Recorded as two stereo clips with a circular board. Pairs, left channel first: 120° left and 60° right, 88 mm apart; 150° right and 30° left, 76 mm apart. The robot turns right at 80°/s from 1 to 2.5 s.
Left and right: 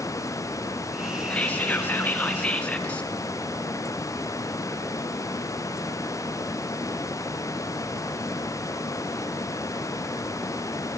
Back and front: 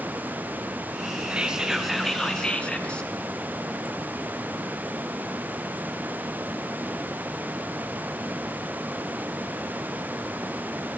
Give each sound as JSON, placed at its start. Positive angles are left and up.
{"t": 1.3, "sound": "whispering", "azimuth_deg": 70, "distance_m": 1.3}